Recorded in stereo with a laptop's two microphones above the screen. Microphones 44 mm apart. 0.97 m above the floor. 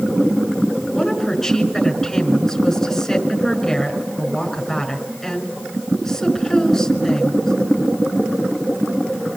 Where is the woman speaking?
5° left (ahead or behind), 5.5 m.